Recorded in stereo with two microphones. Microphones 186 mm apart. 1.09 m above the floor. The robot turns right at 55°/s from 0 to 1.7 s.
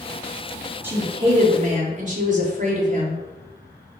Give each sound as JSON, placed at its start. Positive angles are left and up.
{"t": 0.8, "sound": "a woman speaking", "azimuth_deg": -165, "distance_m": 0.6}